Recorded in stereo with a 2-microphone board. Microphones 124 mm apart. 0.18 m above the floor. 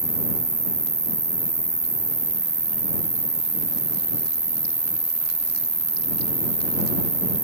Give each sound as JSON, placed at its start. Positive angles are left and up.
{"t": 0.0, "sound": "an insect", "side_deg": 85}